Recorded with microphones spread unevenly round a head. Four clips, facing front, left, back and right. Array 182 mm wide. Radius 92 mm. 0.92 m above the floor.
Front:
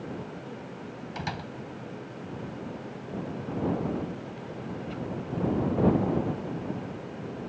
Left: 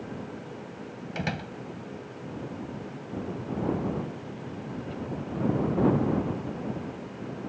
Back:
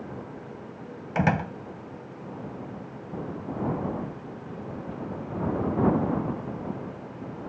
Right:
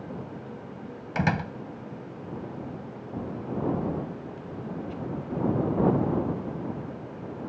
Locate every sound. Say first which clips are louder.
1.1 s a door slam: right 7 dB, back 12 dB; 175° right